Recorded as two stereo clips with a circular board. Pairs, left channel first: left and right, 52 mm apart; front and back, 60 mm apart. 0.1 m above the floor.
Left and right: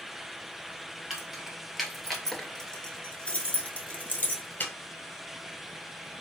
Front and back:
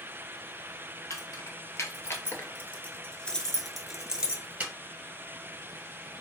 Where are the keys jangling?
10° right, 1.4 m; by 4.7 s 125° left, 1.1 m.